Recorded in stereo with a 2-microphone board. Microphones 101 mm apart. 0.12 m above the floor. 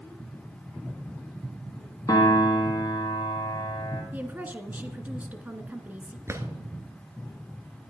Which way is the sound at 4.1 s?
15° right (ahead or behind).